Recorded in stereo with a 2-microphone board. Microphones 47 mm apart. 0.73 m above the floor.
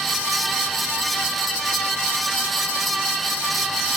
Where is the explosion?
No explosion in this recording.